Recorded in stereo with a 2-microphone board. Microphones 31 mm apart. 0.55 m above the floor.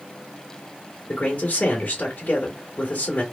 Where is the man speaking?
60° left (ahead or behind), 2.0 m.